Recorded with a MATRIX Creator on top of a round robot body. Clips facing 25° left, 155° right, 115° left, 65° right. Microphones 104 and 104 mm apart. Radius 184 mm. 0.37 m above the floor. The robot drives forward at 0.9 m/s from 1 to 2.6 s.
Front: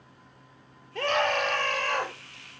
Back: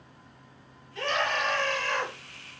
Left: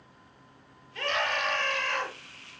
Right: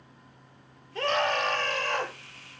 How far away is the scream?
About 9.5 m.